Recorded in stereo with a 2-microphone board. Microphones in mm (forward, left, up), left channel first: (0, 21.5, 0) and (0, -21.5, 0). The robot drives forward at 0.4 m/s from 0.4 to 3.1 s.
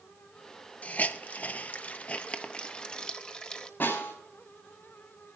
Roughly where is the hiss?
Left.